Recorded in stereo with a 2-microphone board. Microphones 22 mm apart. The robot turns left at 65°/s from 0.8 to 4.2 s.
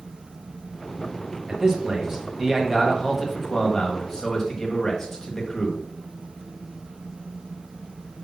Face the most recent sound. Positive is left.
turn(degrees=20)  # may be behind; listen again after turning